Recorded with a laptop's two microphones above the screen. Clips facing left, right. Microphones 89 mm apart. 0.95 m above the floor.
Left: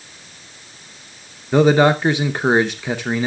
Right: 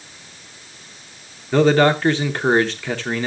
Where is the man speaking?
15° left (ahead or behind), 0.7 m.